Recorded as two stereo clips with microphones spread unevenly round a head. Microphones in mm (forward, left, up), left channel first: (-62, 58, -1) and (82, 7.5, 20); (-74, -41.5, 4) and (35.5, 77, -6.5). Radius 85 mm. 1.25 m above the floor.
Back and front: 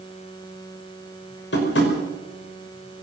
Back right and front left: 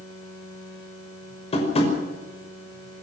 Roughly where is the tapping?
Behind.